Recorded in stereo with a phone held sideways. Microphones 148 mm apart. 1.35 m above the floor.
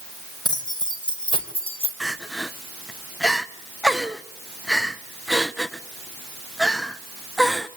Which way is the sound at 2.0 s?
Centre (ahead or behind).